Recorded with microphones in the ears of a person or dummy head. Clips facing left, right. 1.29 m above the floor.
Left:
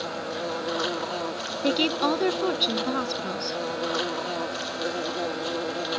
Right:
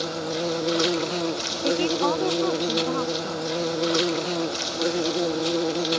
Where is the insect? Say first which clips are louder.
Right 4 dB; 35° right (ahead or behind).